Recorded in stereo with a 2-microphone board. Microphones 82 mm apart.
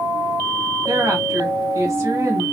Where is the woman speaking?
35° right (ahead or behind), 1.3 m.